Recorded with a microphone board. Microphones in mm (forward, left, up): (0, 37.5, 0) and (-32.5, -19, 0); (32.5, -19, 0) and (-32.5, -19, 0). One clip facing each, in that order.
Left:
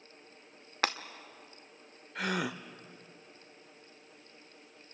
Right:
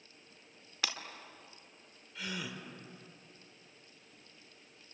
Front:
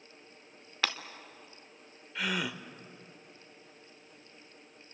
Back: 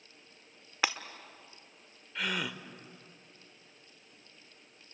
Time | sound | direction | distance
0.8 | breaking glass | 105° left | 1.0 m
2.1 | a gasp | 85° left | 0.9 m